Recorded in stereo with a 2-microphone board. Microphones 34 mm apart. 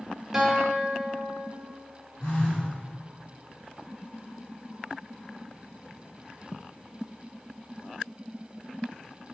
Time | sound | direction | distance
0.3 | a guitar | 10° right (ahead or behind) | 1.4 m
2.2 | a phone buzzing | 80° left | 1.9 m